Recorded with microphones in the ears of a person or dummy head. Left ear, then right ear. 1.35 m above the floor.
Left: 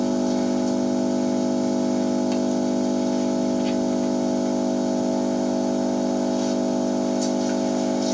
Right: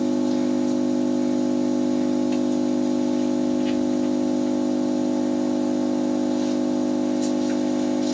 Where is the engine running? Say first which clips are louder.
Even; 75° left (ahead or behind), 1.4 m.